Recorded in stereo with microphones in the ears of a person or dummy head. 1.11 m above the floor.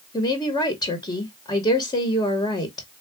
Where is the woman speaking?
20° left (ahead or behind), 1.1 m.